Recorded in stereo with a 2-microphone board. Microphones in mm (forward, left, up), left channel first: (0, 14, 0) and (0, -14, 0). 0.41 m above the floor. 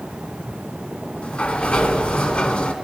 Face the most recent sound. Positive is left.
turn(degrees=50)  # may be behind; listen again after turning